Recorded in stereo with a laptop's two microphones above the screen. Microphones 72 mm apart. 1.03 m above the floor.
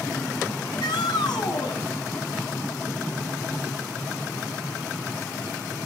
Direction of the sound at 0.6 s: 85° left.